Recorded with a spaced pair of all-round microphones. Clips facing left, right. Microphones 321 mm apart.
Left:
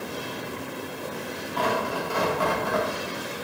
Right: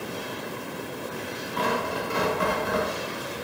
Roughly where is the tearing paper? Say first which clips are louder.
Left 1 dB; right.